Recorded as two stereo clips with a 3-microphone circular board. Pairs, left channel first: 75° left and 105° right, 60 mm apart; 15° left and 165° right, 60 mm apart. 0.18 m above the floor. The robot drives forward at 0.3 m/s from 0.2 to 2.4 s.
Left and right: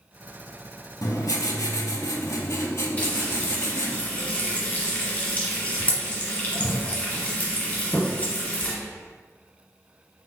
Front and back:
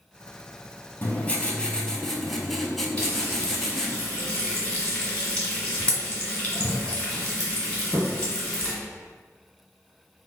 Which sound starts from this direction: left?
Writing, at 1.0 s.